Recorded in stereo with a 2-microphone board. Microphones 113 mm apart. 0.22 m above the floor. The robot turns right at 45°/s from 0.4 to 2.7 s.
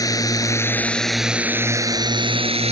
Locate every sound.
0.0 s a drone: 145° left; by 2.7 s 110° right